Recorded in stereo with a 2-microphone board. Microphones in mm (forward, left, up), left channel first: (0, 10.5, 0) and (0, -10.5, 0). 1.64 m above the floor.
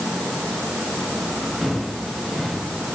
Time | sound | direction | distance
1.6 | footsteps | 55° right (ahead or behind) | 6.5 m